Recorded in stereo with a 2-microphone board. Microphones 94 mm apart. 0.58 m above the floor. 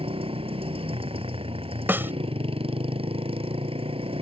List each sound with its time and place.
0.0 s a motorcycle: 85° right
1.9 s a snare drum: 20° right (ahead or behind)